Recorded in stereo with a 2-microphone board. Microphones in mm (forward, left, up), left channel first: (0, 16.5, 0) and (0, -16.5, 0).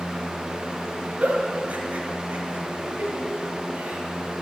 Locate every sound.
1.2 s a giggle: 45° right (ahead or behind), 1.8 m